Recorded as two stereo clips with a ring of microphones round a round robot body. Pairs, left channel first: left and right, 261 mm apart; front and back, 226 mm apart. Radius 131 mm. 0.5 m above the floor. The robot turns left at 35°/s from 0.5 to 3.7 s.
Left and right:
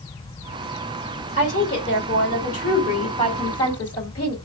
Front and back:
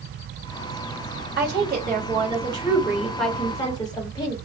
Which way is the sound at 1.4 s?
150° left.